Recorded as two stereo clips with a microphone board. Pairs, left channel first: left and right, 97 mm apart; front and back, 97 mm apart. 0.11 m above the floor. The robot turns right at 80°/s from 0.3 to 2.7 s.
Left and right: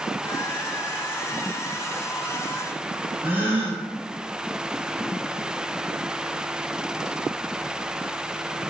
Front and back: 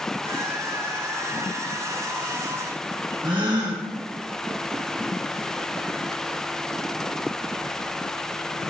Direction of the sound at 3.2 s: 160° right.